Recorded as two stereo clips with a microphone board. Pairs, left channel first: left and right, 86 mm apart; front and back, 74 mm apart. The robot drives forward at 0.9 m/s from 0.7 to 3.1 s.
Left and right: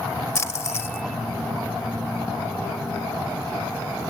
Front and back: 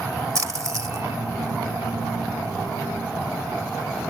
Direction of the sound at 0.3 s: 145° left.